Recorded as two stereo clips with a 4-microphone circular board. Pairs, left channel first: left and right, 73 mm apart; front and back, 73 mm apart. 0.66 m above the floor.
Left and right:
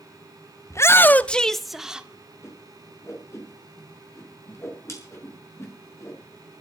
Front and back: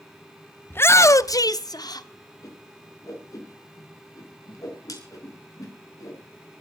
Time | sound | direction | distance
0.7 | a shout | 55° left | 0.9 m
2.4 | a whoosh | 40° left | 6 m